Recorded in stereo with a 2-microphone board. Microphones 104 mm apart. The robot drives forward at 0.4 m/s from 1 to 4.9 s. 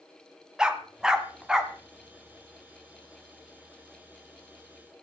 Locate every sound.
0.6 s a dog barking: 5° right (ahead or behind), 1.6 m